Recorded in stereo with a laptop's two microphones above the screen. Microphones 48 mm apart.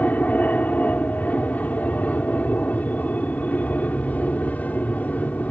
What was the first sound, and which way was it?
An aircraft, 35° left (ahead or behind).